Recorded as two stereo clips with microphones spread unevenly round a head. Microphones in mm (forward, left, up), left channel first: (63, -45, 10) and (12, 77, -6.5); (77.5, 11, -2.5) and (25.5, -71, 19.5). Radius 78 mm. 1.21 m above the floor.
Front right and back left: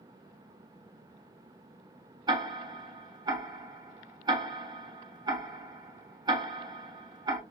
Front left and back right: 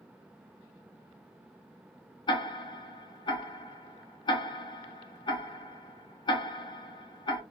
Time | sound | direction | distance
2.3 | ticking | 65° left | 0.7 m